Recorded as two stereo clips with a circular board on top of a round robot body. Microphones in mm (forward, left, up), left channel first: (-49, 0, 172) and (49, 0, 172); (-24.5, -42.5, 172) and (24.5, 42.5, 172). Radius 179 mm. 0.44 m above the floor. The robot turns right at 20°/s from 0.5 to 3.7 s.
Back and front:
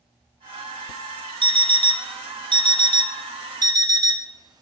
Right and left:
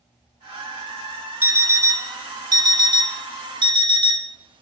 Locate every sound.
1.4 s an alarm clock: 5° right, 0.7 m; by 4.6 s 40° left, 0.7 m